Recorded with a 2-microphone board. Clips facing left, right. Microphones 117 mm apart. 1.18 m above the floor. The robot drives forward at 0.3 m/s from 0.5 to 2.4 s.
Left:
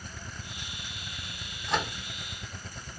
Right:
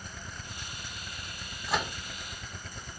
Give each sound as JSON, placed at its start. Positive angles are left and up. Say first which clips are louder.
{"t": 1.7, "sound": "a microwave", "louder": "left 1 dB", "side_deg": -5, "distance_m": 0.9}